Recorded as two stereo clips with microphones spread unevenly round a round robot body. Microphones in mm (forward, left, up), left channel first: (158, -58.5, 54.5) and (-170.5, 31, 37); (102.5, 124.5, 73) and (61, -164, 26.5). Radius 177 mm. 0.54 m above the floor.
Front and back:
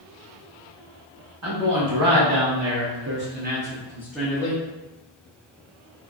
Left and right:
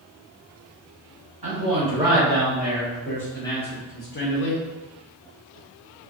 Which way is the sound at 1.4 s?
165° right.